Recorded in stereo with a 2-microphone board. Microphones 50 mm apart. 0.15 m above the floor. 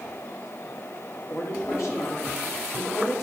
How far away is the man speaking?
About 4.5 m.